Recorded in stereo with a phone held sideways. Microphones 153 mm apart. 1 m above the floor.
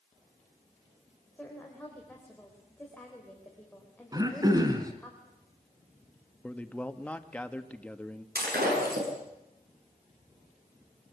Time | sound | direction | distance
1.4 | a woman speaking | 10° left (ahead or behind) | 3.5 m
4.1 | throat clearing | 25° right (ahead or behind) | 2.5 m
6.4 | a man speaking | 10° left (ahead or behind) | 1.4 m
8.3 | breaking glass | 85° right | 7.5 m